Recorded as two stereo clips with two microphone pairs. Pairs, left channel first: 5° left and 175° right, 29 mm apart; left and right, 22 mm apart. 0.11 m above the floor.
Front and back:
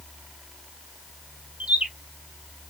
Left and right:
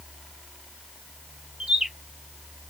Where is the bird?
145° right, 1.3 m.